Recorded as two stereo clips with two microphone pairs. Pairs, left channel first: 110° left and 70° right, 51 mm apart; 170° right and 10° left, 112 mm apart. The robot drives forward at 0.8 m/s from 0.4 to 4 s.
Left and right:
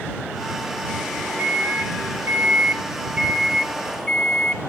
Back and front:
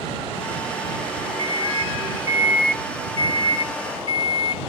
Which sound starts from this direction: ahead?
A microwave, at 1.4 s.